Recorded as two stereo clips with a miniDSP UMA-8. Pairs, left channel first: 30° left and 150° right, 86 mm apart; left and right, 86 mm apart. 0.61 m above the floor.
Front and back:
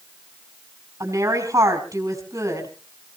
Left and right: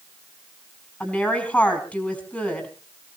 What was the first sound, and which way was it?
A woman speaking, 160° left.